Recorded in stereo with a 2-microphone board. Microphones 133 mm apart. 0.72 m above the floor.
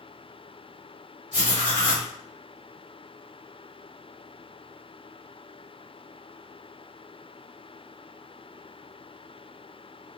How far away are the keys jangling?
No keys jangling in this recording.